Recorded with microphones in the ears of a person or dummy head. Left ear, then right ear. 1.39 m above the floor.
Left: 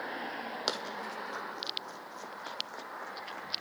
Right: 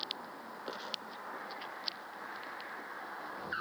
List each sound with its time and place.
0.7 s running footsteps: 65° left (ahead or behind), 3 m; by 3.6 s 35° left (ahead or behind), 5.5 m